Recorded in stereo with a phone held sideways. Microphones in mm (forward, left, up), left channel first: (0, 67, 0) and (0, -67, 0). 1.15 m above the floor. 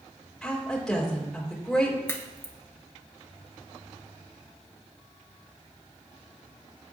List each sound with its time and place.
0.4 s a woman speaking: 5° left (ahead or behind), 3.5 m
2.1 s a crack: 20° left (ahead or behind), 1.4 m